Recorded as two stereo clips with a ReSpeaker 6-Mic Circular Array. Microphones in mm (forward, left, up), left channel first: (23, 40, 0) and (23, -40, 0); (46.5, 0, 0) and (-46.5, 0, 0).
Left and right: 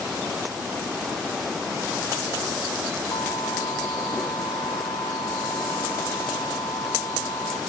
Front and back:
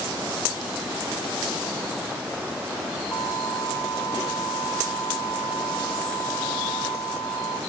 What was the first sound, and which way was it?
An alarm, 55° left.